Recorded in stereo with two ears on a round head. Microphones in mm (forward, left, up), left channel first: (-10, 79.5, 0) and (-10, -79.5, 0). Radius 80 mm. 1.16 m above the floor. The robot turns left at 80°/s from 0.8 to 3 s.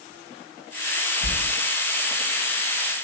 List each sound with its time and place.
1.2 s a sliding door: 55° left (ahead or behind), 3 m; by 1.4 s 65° left (ahead or behind), 3 m